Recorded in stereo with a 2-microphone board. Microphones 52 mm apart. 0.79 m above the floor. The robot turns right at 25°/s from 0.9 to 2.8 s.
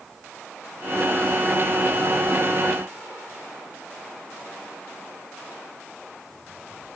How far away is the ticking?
I don't hear ticking.